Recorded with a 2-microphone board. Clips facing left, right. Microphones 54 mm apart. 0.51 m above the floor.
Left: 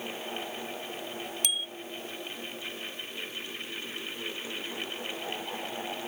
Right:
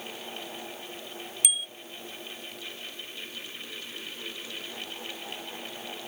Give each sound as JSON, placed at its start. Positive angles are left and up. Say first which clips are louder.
{"t": 1.4, "sound": "a bicycle bell", "louder": "even", "side_deg": -10}